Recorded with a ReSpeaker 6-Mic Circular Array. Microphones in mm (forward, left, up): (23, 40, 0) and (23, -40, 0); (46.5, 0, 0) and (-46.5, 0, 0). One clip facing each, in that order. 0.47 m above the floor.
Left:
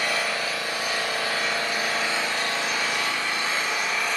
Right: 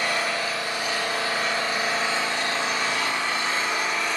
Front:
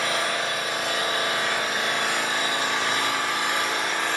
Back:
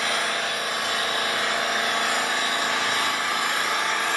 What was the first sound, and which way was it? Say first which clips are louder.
An engine running: right 1 dB, front 1 dB; 150° right.